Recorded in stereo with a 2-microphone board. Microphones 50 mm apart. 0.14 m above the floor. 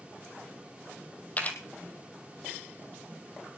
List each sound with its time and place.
1.4 s a camera shutter: 30° left (ahead or behind), 2 m